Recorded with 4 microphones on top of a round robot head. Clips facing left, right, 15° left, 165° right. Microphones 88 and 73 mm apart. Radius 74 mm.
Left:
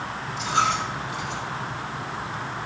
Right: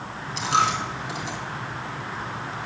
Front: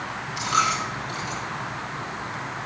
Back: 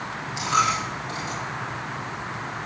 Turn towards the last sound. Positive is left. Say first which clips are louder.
# right 1 dB, back 1 dB
turn(degrees=-95)